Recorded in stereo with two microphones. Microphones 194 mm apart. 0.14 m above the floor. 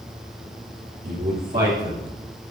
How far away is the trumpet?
I don't hear a trumpet.